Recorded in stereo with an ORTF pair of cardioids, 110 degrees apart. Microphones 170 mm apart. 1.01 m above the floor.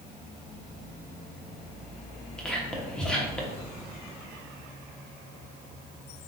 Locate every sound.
2.4 s whispering: 5° left, 1.1 m